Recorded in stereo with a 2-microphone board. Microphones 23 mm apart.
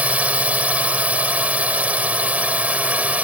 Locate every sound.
0.0 s a drone: 80° right